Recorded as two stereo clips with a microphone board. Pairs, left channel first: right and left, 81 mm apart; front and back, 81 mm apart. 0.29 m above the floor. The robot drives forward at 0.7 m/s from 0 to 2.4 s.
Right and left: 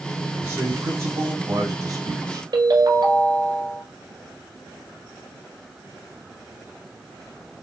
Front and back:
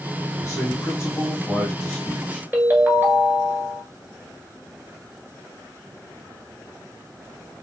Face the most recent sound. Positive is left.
turn(degrees=115)